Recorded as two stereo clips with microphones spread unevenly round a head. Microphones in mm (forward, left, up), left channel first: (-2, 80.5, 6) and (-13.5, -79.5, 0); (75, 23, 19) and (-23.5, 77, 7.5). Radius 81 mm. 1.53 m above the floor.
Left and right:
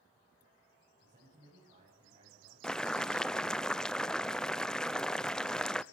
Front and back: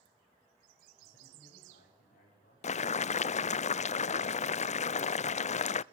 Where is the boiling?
Straight ahead, 0.5 m.